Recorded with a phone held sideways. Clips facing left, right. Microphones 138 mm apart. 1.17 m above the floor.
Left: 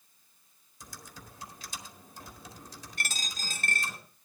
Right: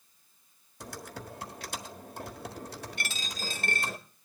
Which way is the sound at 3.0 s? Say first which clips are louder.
Left 3 dB; 40° left (ahead or behind).